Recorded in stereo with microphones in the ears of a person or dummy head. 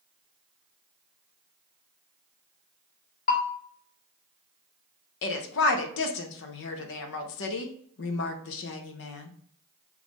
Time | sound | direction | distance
3.3 | a bell | 40° left (ahead or behind) | 0.7 m
5.2 | a woman speaking | 70° left (ahead or behind) | 0.6 m